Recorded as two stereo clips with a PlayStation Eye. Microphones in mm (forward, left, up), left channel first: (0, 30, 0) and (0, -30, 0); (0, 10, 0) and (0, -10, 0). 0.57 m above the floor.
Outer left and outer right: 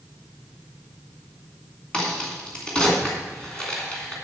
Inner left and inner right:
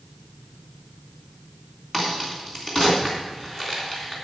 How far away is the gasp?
No gasp in this recording.